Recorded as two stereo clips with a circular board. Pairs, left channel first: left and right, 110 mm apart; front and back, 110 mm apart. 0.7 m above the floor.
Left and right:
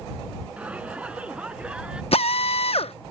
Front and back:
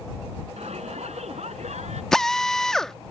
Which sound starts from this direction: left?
A drill, at 2.1 s.